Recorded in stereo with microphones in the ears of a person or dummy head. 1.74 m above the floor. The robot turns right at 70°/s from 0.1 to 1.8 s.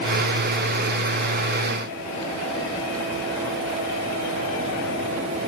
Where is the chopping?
No chopping in this recording.